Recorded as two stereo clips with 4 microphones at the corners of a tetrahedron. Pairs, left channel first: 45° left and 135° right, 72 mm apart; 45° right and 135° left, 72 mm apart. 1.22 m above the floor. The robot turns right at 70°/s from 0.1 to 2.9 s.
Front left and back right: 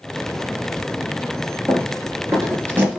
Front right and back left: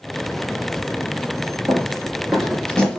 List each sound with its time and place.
1.7 s running footsteps: straight behind, 1.7 m; by 3.0 s 105° right, 1.2 m